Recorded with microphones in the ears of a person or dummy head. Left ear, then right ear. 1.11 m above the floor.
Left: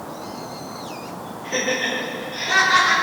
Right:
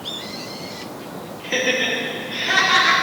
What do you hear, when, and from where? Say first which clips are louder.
1.4 s laughter: right 3 dB; 35° right (ahead or behind), 1.5 m; by 2.9 s 55° right (ahead or behind), 3 m